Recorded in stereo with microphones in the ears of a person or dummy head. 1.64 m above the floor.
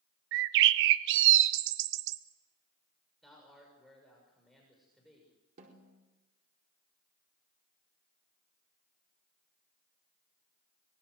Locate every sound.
0.3 s a bird: 65° right (ahead or behind), 0.8 m
3.2 s a man speaking: centre (ahead or behind), 6 m
5.6 s a snare drum: 45° right (ahead or behind), 4.5 m